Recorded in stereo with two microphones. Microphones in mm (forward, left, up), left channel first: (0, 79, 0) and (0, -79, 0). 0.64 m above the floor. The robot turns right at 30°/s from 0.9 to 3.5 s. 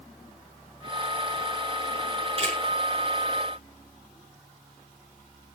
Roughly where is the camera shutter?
Right.